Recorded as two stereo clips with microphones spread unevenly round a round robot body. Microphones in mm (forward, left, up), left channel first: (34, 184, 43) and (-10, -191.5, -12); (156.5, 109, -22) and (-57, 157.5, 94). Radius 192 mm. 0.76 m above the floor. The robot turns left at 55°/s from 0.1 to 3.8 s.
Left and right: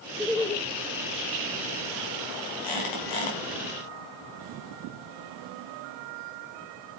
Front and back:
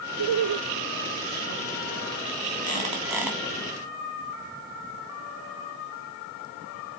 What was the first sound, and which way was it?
Laughter, 175° right.